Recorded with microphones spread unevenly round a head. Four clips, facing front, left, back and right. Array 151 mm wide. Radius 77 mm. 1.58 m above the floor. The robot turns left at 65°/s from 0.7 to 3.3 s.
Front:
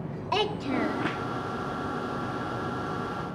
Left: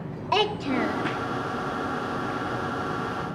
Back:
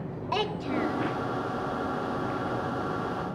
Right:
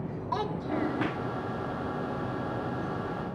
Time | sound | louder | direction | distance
0.3 | a child speaking | left 7 dB, front 2 dB | 60° left | 0.6 m